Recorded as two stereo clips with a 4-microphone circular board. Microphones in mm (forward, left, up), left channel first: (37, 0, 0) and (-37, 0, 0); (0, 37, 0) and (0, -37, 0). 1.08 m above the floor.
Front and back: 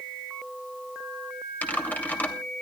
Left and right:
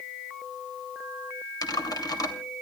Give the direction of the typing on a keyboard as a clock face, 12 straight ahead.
10 o'clock.